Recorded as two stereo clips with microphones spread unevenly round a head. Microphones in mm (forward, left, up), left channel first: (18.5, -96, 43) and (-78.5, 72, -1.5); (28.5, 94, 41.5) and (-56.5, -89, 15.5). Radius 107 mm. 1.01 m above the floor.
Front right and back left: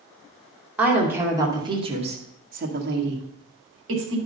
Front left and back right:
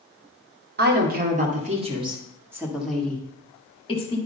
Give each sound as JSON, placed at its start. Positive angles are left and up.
{"t": 0.8, "sound": "a woman speaking", "azimuth_deg": -155, "distance_m": 2.0}